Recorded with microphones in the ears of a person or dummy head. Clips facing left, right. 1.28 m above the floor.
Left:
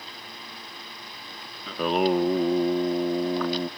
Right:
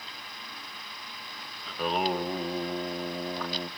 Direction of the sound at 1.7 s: 70° left (ahead or behind).